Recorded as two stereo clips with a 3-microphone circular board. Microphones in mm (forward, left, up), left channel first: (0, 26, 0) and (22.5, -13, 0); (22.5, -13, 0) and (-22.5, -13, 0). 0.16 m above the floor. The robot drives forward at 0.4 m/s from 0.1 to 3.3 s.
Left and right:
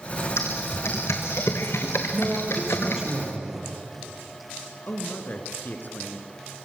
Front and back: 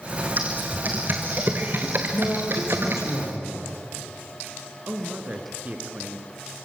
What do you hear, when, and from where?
0.4 s typing on a keyboard: 130° left, 2 m; by 3.1 s 145° left, 3 m
2.1 s a man speaking: 15° left, 5 m; by 3.6 s 20° left, 4.5 m
4.9 s a man speaking: 145° left, 2.5 m